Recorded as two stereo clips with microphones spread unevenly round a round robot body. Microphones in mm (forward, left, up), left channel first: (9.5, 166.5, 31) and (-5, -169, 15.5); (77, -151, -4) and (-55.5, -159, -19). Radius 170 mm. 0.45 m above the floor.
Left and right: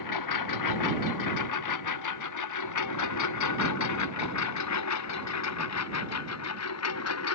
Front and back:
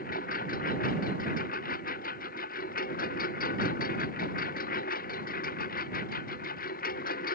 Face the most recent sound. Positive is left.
turn(degrees=40)